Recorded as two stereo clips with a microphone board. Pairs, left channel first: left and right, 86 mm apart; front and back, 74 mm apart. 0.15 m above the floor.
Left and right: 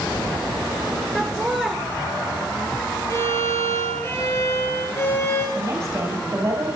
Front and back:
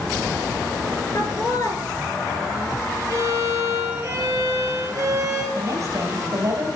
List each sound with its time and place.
1.1 s laughter: straight ahead, 2.5 m
3.1 s a violin: 145° left, 3 m
5.5 s a woman speaking: 140° right, 4 m